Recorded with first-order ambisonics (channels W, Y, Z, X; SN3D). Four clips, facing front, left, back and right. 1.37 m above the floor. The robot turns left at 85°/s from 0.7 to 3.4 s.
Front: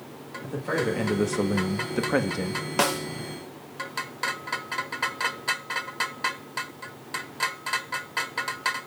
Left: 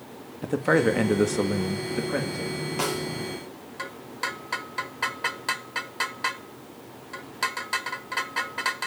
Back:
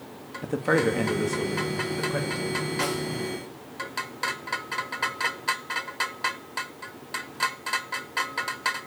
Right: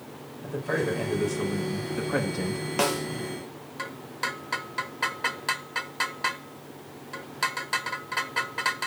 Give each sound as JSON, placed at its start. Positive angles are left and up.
{"t": 0.4, "sound": "a man speaking", "azimuth_deg": 120, "distance_m": 1.6}
{"t": 2.8, "sound": "a snare drum", "azimuth_deg": -20, "distance_m": 1.6}